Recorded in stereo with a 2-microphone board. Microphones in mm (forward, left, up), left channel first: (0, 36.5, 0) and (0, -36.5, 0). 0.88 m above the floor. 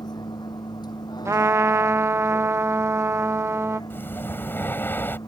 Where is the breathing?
30° left (ahead or behind).